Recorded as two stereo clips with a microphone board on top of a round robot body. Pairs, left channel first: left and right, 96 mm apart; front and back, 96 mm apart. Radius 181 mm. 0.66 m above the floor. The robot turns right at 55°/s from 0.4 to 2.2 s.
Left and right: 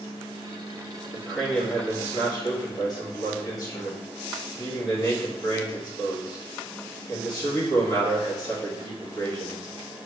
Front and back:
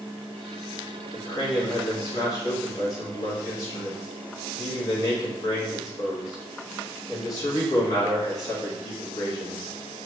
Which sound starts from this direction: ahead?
A man speaking, at 1.1 s.